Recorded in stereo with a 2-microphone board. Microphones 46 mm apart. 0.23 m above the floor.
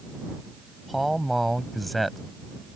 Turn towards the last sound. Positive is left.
turn(degrees=0)  # may be behind; listen again after turning